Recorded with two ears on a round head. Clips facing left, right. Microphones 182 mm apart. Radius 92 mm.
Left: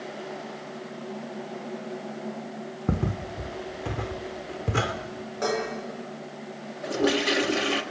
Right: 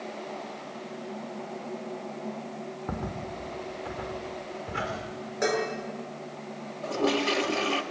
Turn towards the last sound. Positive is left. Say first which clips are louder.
# left 2 dB
turn(degrees=15)  # may be behind; listen again after turning